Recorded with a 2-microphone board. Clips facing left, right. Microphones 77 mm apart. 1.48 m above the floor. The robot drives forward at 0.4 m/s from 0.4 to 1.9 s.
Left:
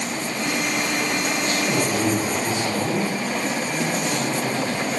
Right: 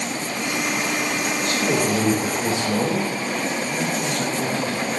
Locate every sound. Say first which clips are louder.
1.4 s a man speaking: right 3 dB; 80° right, 3 m; by 4.8 s 85° right, 3 m